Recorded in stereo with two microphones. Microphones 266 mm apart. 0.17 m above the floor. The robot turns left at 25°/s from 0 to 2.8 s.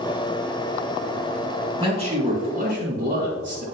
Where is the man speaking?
20° right (ahead or behind), 1.8 m; by 3.6 s 35° right (ahead or behind), 1.8 m.